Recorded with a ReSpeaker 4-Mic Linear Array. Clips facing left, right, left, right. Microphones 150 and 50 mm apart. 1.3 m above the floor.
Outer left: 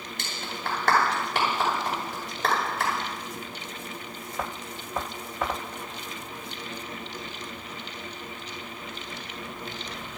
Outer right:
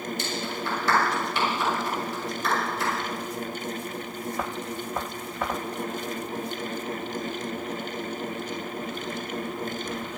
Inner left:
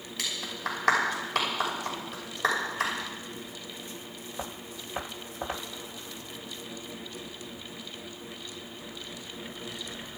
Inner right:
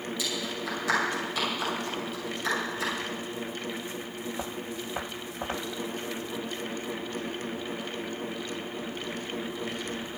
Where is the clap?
70° left (ahead or behind), 6 m.